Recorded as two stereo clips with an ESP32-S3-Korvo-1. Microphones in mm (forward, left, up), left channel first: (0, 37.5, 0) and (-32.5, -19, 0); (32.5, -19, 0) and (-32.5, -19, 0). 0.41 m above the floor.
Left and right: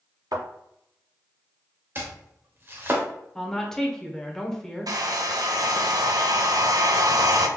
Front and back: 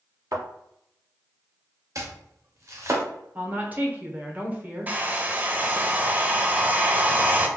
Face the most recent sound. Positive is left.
turn(degrees=-115)